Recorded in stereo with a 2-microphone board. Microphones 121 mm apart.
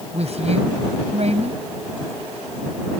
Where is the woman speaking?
60° right (ahead or behind).